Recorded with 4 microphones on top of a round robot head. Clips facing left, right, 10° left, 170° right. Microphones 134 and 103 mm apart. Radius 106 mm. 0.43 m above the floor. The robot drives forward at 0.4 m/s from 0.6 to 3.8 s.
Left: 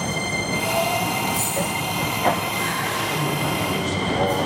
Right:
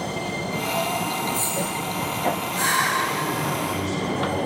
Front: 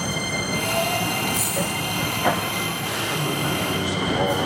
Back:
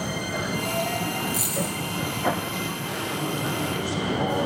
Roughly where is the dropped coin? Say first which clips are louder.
Left 2 dB, front 3 dB; behind.